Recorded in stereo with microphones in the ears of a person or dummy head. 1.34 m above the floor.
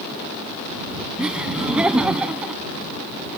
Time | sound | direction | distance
1.2 | laughter | 5° right (ahead or behind) | ?